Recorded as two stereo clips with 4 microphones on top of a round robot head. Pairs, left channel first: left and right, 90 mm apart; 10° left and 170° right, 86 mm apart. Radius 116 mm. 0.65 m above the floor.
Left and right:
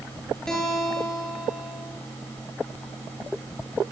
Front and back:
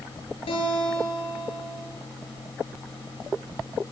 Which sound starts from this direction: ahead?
A guitar, at 0.5 s.